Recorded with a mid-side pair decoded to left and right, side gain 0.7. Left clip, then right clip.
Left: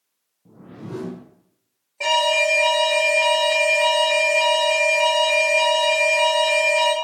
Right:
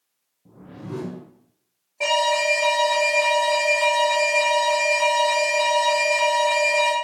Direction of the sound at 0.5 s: Straight ahead.